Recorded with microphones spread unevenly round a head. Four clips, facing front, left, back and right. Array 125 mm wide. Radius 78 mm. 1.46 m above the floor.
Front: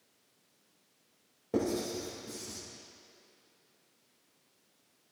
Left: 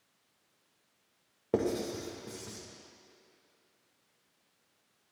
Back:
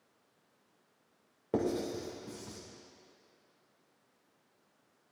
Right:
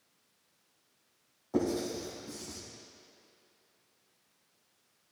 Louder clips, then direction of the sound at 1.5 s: Even, front 1 dB; 95° left.